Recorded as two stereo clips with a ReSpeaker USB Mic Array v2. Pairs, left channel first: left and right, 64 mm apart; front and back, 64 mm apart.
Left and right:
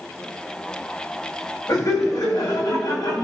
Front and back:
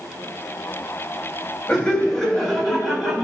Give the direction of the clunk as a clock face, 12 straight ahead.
No clunk in this recording.